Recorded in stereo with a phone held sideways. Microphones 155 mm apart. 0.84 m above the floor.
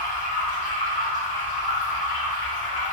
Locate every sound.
0.0 s running water: 60° left (ahead or behind), 1.5 m